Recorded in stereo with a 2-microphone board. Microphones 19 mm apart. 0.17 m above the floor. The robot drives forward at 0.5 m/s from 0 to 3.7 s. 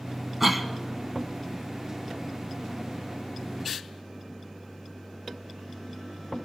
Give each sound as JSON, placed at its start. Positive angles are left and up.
{"t": 0.4, "sound": "a cough", "side_deg": -15, "distance_m": 1.1}